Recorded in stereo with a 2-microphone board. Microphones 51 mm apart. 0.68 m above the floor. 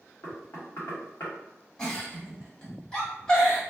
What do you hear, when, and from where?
0.2 s knocking: 65° left (ahead or behind), 1.3 m
1.8 s a giggle: 15° left (ahead or behind), 1.7 m